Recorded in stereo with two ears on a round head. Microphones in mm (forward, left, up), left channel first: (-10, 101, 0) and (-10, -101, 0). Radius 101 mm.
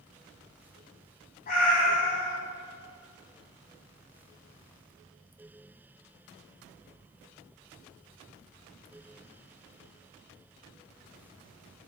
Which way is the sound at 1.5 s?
40° left (ahead or behind).